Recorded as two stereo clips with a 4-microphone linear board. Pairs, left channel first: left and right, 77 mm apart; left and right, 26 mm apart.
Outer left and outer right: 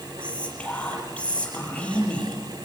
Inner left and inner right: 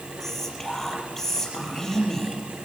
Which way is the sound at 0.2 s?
15° left (ahead or behind).